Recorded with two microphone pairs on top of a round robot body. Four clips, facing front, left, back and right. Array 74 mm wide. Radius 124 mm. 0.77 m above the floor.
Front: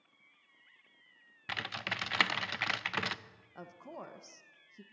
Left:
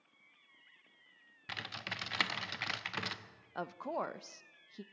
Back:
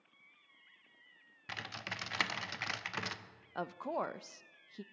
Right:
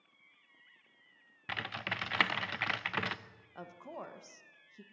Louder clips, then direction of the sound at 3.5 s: Left 8 dB, back 10 dB; 135° left.